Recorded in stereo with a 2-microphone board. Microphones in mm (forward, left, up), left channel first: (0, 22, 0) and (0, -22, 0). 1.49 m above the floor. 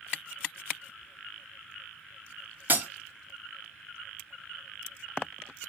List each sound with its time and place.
2.7 s breaking glass: 35° right (ahead or behind), 2.5 m